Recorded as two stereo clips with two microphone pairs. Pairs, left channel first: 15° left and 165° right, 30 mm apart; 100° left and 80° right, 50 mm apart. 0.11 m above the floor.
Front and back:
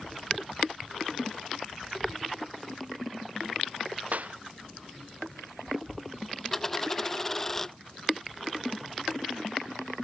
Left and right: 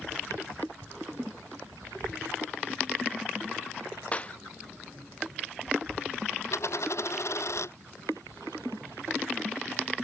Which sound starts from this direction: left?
A dropped coin, at 6.5 s.